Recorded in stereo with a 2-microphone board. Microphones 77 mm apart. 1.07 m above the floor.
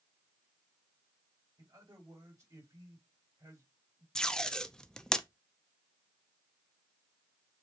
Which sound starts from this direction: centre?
Tape being pulled, at 4.2 s.